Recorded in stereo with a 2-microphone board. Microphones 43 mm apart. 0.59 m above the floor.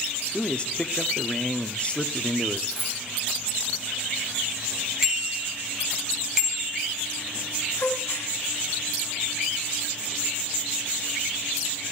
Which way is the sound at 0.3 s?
25° left (ahead or behind).